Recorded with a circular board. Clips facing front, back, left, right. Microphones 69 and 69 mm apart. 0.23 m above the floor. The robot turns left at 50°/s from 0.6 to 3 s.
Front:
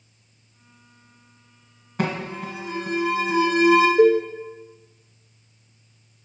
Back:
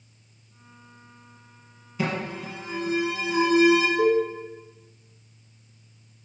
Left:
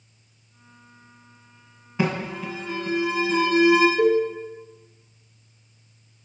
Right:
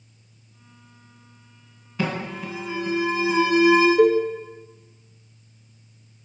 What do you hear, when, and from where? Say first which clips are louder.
2.0 s an alarm: front 2 dB, left 2 dB; 20° left, 1.3 m; by 3.9 s 30° right, 1.3 m
4.0 s a cowbell: front 5 dB, right 2 dB; 35° right, 1.0 m